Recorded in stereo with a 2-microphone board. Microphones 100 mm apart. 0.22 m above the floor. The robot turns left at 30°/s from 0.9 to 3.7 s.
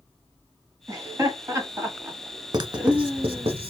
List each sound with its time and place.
0.9 s laughter: 30° right (ahead or behind), 1.1 m; by 3.5 s 5° right (ahead or behind), 1.1 m
2.5 s writing: 45° right (ahead or behind), 0.6 m; by 3.7 s 75° right (ahead or behind), 0.6 m